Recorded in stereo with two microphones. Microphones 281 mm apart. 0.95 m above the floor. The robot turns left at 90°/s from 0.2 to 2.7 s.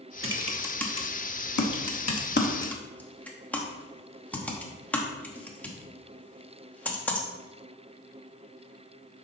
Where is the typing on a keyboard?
45° right (ahead or behind), 1.0 m; by 7.3 s 5° left (ahead or behind), 1.0 m.